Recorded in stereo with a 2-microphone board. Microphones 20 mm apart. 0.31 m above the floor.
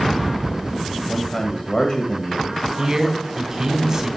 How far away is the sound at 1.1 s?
About 1.3 m.